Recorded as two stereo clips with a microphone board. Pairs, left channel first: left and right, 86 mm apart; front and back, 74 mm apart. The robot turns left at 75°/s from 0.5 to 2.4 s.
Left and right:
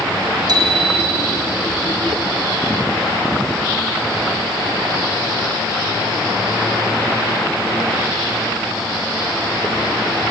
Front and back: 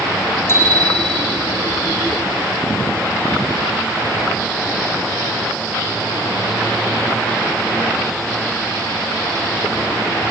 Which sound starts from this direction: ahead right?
A bicycle bell, at 0.5 s.